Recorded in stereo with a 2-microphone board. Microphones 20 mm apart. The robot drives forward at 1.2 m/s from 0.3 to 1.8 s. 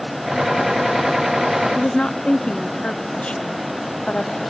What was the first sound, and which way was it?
A woman speaking, 65° left (ahead or behind).